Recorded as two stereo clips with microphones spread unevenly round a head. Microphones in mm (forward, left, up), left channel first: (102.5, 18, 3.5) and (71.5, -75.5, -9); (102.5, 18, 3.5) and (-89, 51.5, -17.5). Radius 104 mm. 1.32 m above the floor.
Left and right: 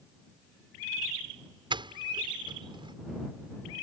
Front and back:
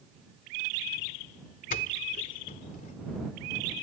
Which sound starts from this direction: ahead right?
A doorbell, at 1.7 s.